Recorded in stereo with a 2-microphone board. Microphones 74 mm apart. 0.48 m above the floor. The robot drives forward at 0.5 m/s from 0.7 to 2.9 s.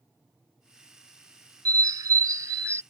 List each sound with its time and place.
1.6 s a bird: 65° right (ahead or behind); by 2.8 s 40° right (ahead or behind)